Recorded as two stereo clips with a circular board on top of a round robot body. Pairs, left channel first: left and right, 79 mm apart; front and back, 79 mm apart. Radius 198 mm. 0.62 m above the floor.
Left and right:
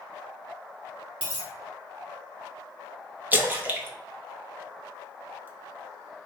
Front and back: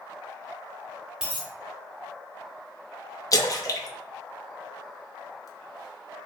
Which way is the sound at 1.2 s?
95° right.